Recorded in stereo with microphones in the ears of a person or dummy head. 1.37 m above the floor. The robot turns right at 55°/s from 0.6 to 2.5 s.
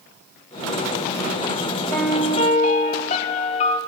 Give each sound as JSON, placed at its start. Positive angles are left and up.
{"t": 1.9, "sound": "a piano", "azimuth_deg": 10, "distance_m": 0.6}